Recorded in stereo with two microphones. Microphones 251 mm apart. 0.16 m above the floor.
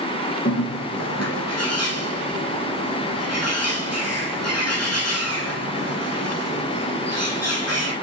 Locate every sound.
0.5 s a bird: 80° left, 3.5 m